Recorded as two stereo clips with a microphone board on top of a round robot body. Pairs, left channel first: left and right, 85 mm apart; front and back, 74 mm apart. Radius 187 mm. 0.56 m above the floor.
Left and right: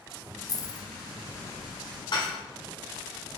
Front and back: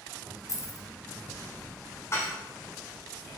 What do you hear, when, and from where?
0.5 s keys jangling: 45° left, 1.0 m
2.1 s dishes clattering: 55° left, 1.6 m